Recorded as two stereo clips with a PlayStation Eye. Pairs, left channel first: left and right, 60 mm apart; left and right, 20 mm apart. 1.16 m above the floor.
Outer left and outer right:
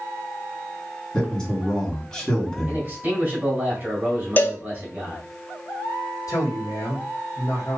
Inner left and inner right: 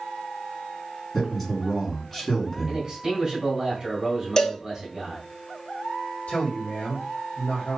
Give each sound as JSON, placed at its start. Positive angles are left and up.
{"t": 1.1, "sound": "a man speaking", "side_deg": 15, "distance_m": 3.0}
{"t": 2.7, "sound": "a man speaking", "side_deg": -30, "distance_m": 2.5}
{"t": 4.4, "sound": "a cowbell", "side_deg": 35, "distance_m": 0.7}
{"t": 6.3, "sound": "a man speaking", "side_deg": 80, "distance_m": 1.6}